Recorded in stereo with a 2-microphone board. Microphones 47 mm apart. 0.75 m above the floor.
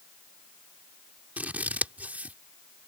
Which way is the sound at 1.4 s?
35° right (ahead or behind).